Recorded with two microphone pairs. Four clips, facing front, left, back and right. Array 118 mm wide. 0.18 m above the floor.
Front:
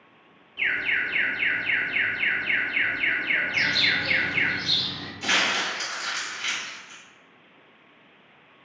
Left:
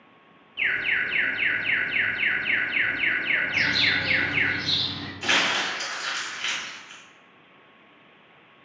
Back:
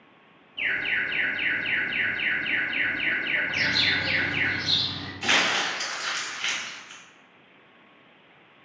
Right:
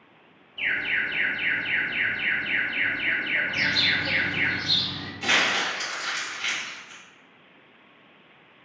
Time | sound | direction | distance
0.6 | an alarm | 55° left | 1.1 m
3.5 | a bird | 85° left | 1.6 m
5.2 | crumpling | 145° right | 1.5 m